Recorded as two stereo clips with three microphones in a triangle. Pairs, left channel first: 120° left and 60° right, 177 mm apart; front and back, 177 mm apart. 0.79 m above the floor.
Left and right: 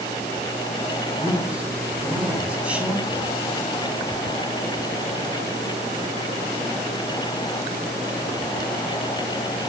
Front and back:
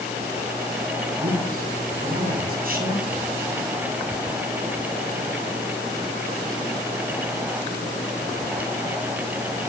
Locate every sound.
1.2 s a man speaking: 145° right, 7.5 m